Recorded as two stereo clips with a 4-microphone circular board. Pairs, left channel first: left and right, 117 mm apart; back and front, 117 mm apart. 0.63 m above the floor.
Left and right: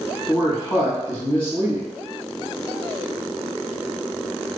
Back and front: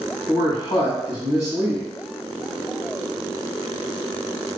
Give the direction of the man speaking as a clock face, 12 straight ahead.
8 o'clock.